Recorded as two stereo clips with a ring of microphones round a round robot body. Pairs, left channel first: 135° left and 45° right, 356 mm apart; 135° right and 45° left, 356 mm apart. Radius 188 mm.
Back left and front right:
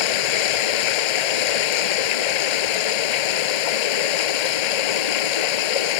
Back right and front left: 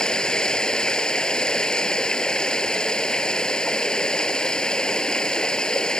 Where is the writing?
I don't hear writing.